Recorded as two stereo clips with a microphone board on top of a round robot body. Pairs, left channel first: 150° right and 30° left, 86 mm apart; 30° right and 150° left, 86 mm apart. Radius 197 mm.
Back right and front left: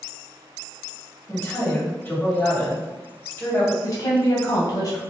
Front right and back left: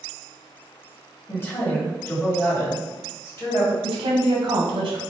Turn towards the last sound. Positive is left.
turn(degrees=180)